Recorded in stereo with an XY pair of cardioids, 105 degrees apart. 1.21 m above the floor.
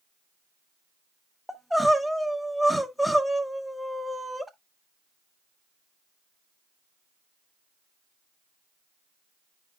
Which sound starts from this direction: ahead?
Crying, at 1.5 s.